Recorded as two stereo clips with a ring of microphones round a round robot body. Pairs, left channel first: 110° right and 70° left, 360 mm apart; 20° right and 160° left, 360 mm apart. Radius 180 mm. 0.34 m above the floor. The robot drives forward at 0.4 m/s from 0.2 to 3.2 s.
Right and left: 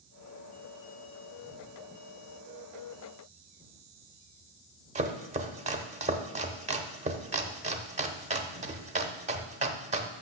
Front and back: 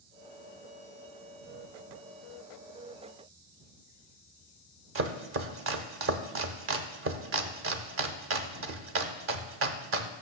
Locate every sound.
5.0 s chopping: 130° left, 0.6 m